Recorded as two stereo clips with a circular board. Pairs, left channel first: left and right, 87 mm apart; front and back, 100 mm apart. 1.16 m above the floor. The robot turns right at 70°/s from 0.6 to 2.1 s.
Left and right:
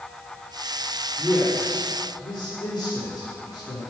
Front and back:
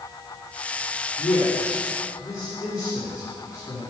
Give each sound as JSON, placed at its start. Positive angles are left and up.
{"t": 1.2, "sound": "a man speaking", "azimuth_deg": -5, "distance_m": 3.5}